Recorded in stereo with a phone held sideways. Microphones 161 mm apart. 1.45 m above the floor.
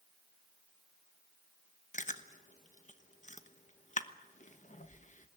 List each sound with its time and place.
1.9 s chewing: 50° left (ahead or behind), 1.1 m